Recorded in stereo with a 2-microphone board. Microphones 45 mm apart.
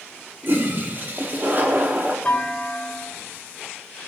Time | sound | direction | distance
0.4 | a toilet flushing | 45° right (ahead or behind) | 1.2 m
2.2 | a clunk | 20° left (ahead or behind) | 1.8 m